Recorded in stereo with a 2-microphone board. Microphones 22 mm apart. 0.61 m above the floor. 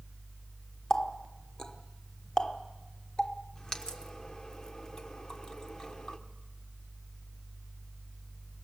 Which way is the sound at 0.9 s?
30° left (ahead or behind).